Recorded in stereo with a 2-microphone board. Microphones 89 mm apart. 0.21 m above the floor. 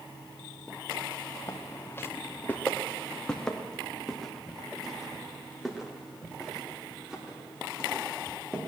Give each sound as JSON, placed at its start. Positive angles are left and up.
{"t": 1.5, "sound": "footsteps", "side_deg": 35, "distance_m": 1.2}